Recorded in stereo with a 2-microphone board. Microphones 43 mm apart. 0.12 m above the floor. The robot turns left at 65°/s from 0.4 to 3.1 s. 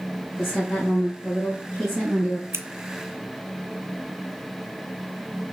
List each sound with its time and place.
0.4 s a woman speaking: 120° left, 3 m; by 2.4 s 10° right, 3 m
2.5 s scissors: 70° right (ahead or behind), 0.5 m